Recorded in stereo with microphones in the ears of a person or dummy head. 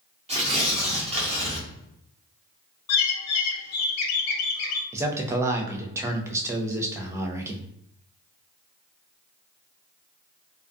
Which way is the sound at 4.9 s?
15° right (ahead or behind).